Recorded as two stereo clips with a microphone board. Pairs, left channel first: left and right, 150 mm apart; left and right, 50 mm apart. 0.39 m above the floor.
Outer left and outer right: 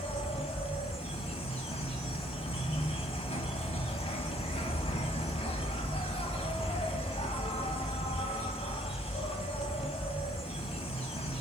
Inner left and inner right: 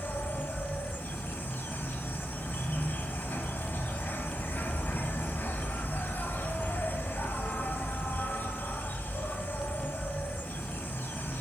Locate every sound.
0.0 s an insect: 45° left (ahead or behind), 0.7 m